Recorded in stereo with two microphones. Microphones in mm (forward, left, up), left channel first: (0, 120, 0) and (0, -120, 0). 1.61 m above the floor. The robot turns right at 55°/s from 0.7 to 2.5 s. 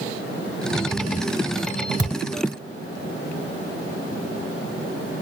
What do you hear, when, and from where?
2.0 s a thud: 15° left (ahead or behind), 1.3 m